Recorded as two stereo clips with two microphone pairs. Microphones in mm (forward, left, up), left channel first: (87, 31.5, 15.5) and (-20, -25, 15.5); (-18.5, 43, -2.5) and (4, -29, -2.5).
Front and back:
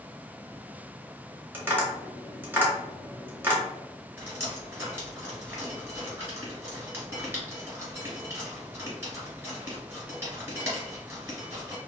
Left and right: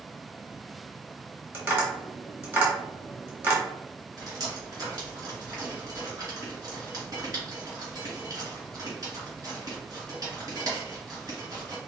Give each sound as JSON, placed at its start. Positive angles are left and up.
{"t": 1.5, "sound": "tapping", "azimuth_deg": -95, "distance_m": 1.1}
{"t": 4.2, "sound": "dripping", "azimuth_deg": -90, "distance_m": 1.8}